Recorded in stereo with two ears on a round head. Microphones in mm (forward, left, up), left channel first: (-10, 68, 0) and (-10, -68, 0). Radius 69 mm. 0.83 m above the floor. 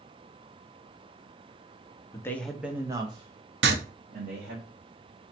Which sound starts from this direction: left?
A man speaking, at 2.1 s.